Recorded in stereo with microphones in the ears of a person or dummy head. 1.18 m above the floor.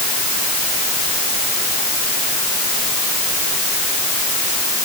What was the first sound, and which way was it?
Only background noise.